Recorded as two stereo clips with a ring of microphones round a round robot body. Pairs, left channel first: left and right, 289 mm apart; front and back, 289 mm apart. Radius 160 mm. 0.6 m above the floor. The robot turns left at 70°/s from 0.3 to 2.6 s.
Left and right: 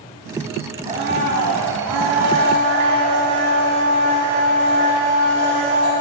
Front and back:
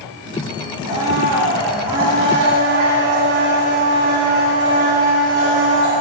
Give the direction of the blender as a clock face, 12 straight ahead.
1 o'clock.